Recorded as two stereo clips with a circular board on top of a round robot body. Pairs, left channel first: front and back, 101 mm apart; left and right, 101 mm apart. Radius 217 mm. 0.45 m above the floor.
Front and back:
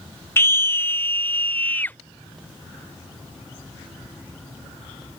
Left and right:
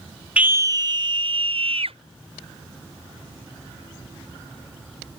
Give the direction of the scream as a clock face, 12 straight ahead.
1 o'clock.